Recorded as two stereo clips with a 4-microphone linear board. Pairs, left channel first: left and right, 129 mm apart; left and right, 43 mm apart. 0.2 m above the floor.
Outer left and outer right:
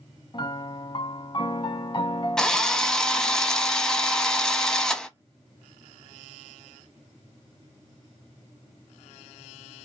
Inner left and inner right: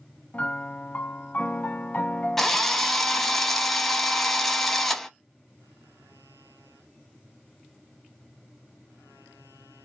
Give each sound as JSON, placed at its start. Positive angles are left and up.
{"t": 0.3, "sound": "a piano", "side_deg": 40, "distance_m": 0.5}
{"t": 2.4, "sound": "a drill", "side_deg": 5, "distance_m": 0.6}